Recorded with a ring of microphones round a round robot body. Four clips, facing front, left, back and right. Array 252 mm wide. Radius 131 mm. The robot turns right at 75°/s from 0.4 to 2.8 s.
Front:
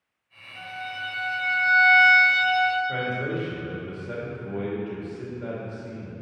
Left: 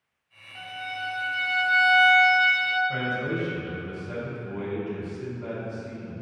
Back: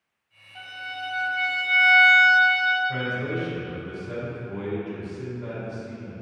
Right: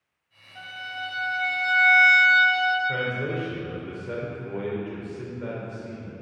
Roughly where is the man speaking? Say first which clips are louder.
Even, even; ahead right.